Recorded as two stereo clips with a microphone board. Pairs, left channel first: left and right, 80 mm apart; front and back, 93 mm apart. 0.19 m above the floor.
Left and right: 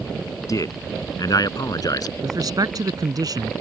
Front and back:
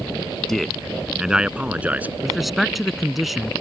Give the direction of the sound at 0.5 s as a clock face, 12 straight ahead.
9 o'clock.